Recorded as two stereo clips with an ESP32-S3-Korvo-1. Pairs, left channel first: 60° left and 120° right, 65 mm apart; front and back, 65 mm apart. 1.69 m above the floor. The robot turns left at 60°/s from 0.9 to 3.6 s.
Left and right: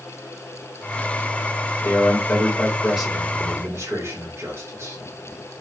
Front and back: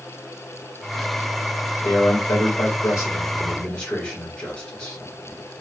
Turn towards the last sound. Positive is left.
turn(degrees=-75)